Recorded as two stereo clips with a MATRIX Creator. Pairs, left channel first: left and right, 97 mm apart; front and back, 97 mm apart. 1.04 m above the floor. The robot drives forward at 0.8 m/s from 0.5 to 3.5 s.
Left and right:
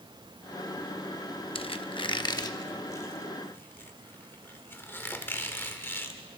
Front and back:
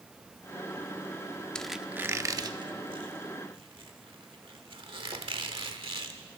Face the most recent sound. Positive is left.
turn(degrees=155)